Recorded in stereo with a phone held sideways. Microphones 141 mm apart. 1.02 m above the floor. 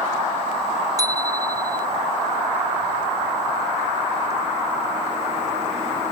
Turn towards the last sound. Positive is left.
turn(degrees=-25)  # may be behind; listen again after turning